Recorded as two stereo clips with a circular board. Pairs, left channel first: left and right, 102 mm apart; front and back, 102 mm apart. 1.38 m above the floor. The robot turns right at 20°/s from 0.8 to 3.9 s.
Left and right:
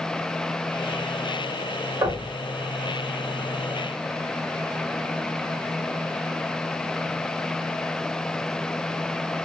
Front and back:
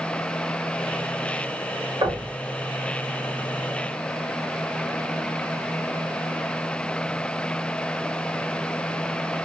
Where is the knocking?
140° right, 1.6 m; by 2.3 s 135° right, 1.6 m.